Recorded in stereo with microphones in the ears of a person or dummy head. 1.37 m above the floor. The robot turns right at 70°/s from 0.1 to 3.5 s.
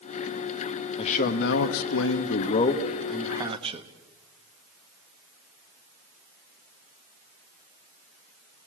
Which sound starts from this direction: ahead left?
A man speaking, at 1.0 s.